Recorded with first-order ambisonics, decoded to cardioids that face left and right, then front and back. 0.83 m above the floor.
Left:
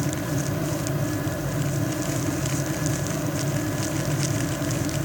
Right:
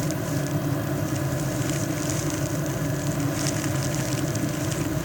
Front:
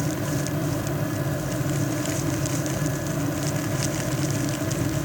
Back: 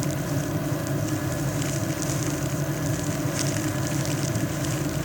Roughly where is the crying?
No crying in this recording.